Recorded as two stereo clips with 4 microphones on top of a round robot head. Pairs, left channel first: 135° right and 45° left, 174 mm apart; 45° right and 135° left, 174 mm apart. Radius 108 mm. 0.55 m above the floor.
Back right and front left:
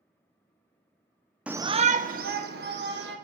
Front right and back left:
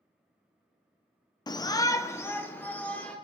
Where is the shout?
30° right, 0.6 m; by 3.2 s 35° left, 2.0 m.